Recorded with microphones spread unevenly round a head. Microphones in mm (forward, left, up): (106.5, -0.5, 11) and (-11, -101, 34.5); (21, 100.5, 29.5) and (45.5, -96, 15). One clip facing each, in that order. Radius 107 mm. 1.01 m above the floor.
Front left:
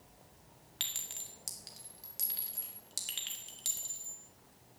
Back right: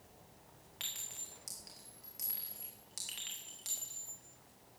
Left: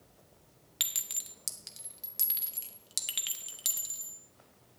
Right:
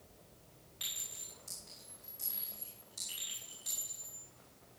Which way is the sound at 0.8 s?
105° left.